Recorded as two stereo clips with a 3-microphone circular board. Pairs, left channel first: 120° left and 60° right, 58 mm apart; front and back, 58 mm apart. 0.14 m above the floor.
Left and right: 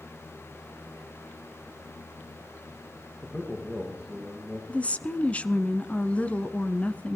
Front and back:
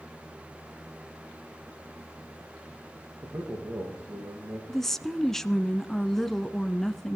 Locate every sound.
3.2 s a man speaking: 165° right, 7 m
4.7 s a woman speaking: 80° left, 1.1 m